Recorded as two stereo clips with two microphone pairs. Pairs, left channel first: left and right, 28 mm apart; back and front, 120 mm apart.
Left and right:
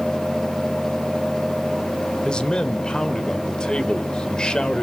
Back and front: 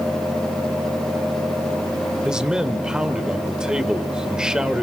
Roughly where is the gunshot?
No gunshot in this recording.